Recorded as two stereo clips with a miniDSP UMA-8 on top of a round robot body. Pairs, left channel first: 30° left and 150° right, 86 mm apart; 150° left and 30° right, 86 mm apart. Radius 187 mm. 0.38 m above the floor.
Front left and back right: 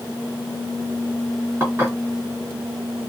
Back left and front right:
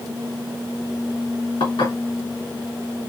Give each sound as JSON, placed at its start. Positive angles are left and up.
{"t": 1.6, "sound": "dishes clattering", "azimuth_deg": 140, "distance_m": 4.0}